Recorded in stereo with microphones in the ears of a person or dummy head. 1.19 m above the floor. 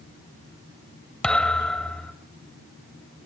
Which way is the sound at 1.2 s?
5° left (ahead or behind).